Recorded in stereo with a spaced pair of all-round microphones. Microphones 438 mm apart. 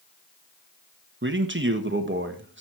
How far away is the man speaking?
About 1.3 m.